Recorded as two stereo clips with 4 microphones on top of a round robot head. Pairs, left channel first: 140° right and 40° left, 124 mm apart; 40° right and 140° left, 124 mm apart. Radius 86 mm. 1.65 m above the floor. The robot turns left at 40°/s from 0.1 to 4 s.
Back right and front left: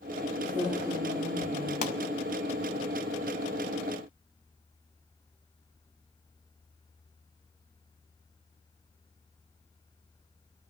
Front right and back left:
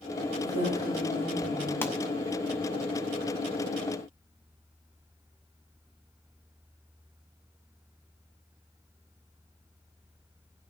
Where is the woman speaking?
25° right, 9.5 m; by 1.7 s 75° right, 9.5 m.